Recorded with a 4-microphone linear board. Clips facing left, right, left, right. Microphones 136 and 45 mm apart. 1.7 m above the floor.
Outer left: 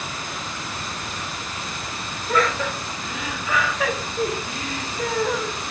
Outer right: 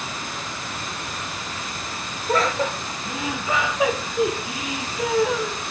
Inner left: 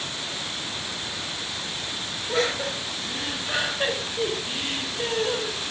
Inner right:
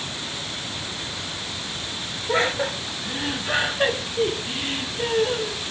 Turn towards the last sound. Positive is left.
turn(degrees=0)  # may be behind; listen again after turning